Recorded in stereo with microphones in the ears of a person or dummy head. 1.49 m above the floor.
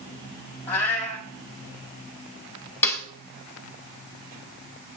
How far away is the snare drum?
About 1.3 m.